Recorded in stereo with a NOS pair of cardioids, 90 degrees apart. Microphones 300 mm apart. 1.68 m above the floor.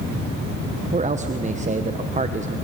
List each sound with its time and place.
0.9 s a man speaking: 25° right, 1.2 m